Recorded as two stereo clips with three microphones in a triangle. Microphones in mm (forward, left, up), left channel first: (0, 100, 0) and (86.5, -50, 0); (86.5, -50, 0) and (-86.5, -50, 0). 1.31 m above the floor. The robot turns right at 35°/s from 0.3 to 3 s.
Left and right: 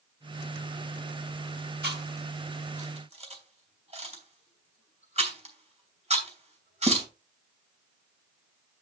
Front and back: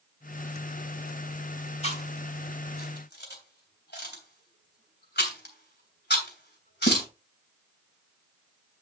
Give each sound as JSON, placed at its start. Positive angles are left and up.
{"t": 1.8, "sound": "chewing", "azimuth_deg": -50, "distance_m": 3.0}